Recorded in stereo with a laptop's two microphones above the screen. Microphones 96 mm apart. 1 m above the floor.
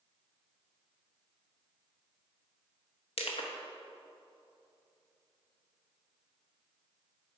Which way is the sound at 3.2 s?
70° left (ahead or behind).